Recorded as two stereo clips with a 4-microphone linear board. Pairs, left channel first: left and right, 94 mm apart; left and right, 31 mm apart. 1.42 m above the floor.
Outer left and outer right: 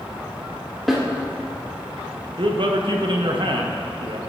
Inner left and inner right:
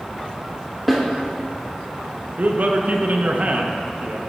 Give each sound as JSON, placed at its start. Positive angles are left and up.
{"t": 0.9, "sound": "a snare drum", "side_deg": 5, "distance_m": 1.4}
{"t": 2.4, "sound": "a man speaking", "side_deg": -60, "distance_m": 0.8}